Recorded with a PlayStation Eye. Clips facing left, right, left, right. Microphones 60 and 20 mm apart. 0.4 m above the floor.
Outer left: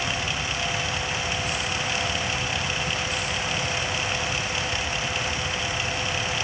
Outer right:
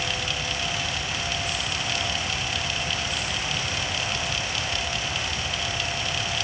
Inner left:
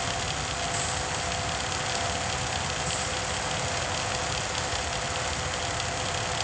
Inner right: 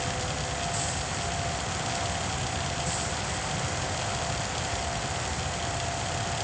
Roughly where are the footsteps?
I don't hear footsteps.